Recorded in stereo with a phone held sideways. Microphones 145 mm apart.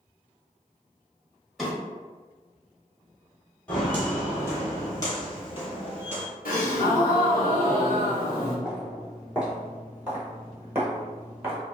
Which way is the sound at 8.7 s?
5° right (ahead or behind).